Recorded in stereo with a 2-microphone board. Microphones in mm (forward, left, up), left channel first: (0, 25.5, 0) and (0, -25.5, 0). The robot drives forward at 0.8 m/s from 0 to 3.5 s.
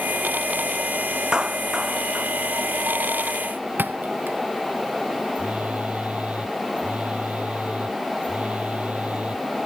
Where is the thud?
40° right (ahead or behind).